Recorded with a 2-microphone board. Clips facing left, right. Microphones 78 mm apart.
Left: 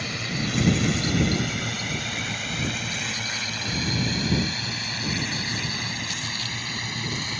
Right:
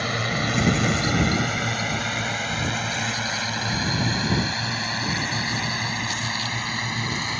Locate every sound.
0.0 s a drone: 55° right (ahead or behind); by 7.4 s 45° right (ahead or behind)